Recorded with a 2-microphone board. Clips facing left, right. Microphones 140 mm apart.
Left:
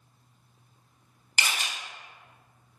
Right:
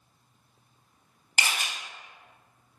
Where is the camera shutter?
50° right (ahead or behind), 0.8 m.